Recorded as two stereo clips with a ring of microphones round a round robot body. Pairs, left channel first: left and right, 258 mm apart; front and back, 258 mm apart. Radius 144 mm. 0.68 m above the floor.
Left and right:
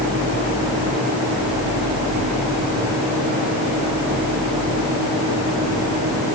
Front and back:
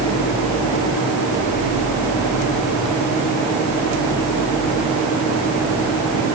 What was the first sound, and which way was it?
Only background noise.